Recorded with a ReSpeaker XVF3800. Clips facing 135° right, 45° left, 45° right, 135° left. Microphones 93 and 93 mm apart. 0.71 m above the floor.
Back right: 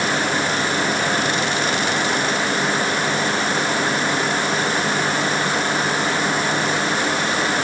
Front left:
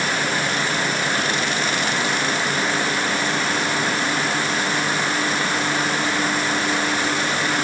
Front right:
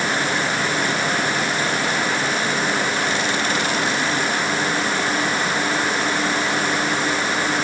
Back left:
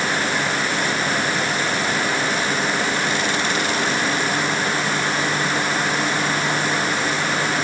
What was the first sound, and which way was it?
Only background noise.